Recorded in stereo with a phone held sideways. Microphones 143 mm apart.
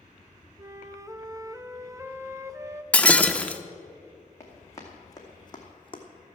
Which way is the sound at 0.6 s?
20° right (ahead or behind).